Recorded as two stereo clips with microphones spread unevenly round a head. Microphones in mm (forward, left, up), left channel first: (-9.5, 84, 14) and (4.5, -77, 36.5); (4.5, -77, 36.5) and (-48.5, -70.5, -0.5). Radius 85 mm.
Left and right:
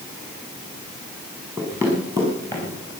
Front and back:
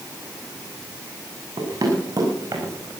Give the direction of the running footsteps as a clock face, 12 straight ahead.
5 o'clock.